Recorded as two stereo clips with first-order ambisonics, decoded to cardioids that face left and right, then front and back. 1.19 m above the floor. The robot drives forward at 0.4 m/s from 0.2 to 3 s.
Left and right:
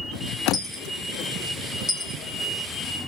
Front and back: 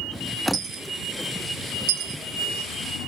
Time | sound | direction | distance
0.5 | a dropped coin | 160° left | 0.6 m